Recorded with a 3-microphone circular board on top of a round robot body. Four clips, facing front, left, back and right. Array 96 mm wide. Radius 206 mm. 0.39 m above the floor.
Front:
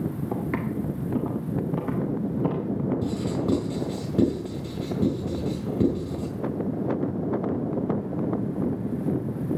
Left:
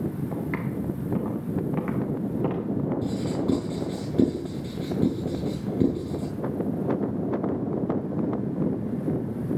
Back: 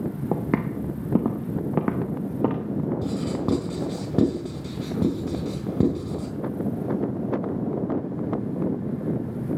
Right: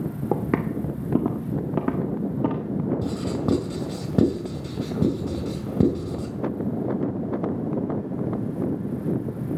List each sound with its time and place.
0.3 s footsteps: 130° right, 1.1 m; by 2.6 s 165° right, 2 m
3.0 s writing: 130° right, 3.5 m